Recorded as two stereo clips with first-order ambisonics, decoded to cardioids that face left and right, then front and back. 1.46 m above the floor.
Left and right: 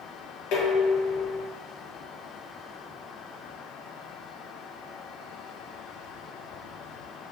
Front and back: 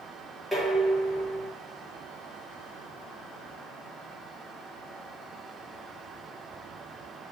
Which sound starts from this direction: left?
Dishes clattering, at 0.5 s.